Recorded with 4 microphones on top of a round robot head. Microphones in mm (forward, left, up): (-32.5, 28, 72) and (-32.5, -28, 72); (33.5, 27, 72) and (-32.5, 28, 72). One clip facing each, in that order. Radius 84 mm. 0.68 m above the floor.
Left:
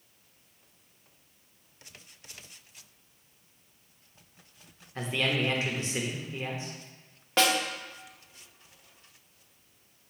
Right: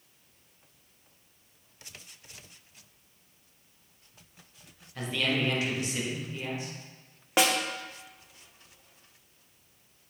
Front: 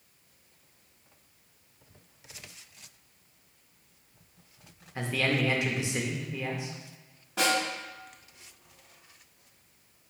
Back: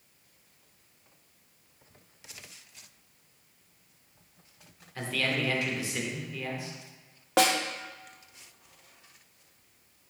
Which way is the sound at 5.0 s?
55° left.